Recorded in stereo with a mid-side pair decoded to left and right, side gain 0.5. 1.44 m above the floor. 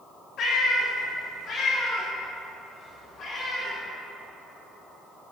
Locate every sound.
0.4 s a cat meowing: 65° left, 1.9 m; by 3.7 s 50° left, 4 m